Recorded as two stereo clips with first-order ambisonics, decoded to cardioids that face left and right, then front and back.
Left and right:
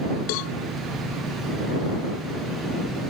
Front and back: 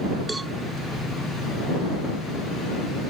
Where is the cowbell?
95° left.